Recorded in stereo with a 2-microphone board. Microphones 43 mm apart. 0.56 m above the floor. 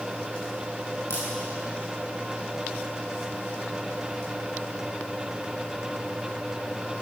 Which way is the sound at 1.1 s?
70° left (ahead or behind).